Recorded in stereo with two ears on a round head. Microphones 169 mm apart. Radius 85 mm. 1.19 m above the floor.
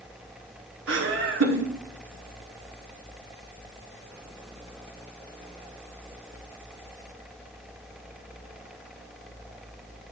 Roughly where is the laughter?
Right.